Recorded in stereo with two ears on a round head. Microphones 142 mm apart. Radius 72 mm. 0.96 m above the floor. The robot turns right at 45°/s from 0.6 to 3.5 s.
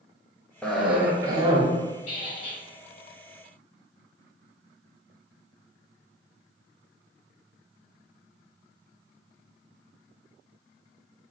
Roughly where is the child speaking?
I don't hear a child speaking.